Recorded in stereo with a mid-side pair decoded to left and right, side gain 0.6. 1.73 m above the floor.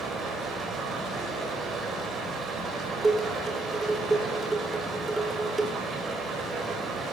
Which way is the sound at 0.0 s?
35° right.